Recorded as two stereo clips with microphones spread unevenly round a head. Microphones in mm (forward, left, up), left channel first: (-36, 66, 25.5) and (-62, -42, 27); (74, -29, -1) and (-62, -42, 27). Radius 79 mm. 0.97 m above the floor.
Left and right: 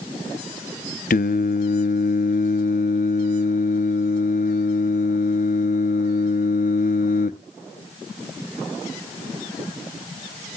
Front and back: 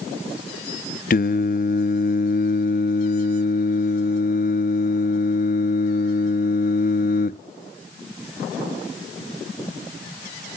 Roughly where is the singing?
Ahead left.